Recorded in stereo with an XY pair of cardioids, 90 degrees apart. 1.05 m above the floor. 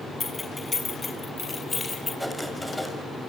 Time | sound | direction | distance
0.2 | keys jangling | 25° left | 6.5 m
2.2 | writing | straight ahead | 7 m